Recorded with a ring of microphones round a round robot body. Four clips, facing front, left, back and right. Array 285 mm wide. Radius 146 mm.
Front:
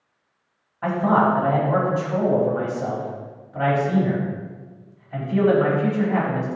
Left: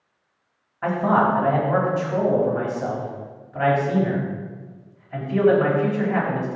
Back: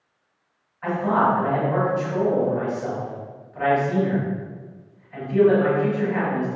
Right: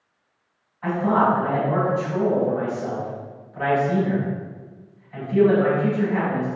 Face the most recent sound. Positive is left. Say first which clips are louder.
# even, front 2 dB
turn(degrees=45)